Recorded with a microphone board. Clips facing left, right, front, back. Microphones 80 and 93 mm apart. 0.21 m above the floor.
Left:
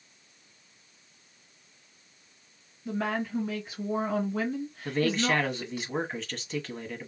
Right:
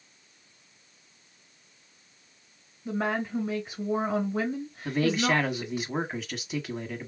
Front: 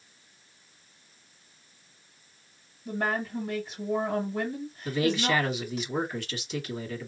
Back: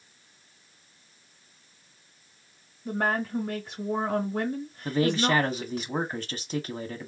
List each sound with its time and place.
2.9 s a woman speaking: 155° right, 3 m
4.8 s a man speaking: 165° right, 1.3 m